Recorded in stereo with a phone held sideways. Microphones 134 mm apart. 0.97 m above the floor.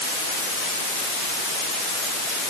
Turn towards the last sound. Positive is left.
No sound to turn to.